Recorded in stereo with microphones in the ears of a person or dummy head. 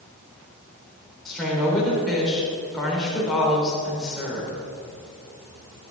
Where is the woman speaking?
Centre (ahead or behind), 4 m.